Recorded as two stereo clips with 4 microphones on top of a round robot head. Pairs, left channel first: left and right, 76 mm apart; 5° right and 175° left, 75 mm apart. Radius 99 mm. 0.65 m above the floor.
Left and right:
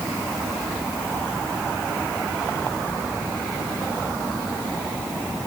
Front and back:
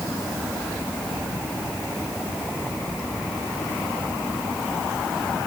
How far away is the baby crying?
No baby crying in this recording.